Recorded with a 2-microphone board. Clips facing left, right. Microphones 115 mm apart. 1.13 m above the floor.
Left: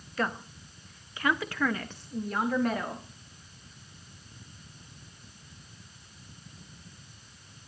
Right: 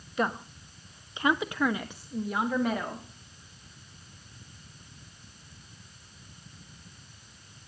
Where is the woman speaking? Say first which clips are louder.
Right 2 dB; 15° right (ahead or behind), 0.9 m; by 3.0 s 5° right (ahead or behind), 1.5 m.